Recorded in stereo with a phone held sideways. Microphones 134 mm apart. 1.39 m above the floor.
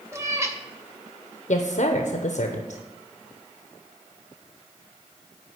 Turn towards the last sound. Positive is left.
turn(degrees=65)  # may be behind; listen again after turning